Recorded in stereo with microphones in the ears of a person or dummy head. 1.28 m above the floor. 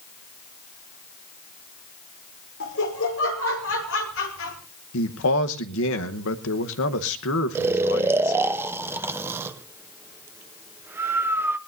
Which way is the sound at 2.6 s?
65° left (ahead or behind).